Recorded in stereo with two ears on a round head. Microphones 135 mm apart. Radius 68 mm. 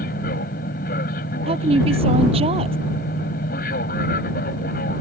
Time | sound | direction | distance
0.0 | an aircraft | 60° left (ahead or behind) | ?
1.5 | a woman speaking | 40° right (ahead or behind) | ?